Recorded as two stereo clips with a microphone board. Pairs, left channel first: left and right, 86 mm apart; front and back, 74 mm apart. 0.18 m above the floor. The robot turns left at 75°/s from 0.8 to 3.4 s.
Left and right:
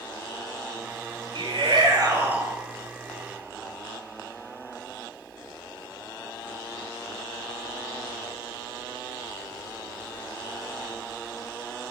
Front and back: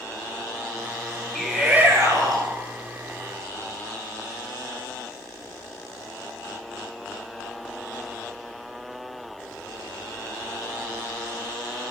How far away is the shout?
About 2.5 m.